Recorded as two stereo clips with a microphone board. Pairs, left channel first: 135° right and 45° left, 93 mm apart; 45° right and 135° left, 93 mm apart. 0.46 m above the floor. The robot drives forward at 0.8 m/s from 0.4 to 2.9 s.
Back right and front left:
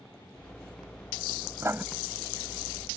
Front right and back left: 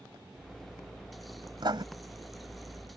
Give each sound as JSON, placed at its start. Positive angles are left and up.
{"t": 1.6, "sound": "writing", "azimuth_deg": 105}